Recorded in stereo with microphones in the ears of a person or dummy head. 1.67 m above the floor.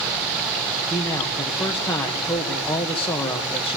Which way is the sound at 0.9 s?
10° left (ahead or behind).